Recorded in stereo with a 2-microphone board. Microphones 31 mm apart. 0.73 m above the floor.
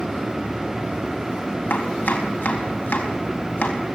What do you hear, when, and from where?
1.7 s chopping: 85° left, 4 m